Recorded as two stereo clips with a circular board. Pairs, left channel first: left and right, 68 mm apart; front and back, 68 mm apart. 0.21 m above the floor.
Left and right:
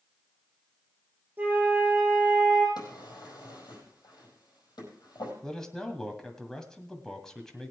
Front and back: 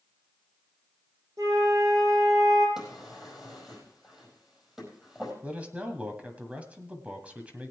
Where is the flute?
150° right, 5.5 m.